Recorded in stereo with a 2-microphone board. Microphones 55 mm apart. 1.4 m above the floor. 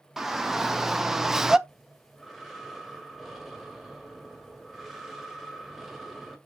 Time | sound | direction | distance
0.2 | a shout | 5° right (ahead or behind) | 1.5 m
1.7 | breathing | centre (ahead or behind) | 1.7 m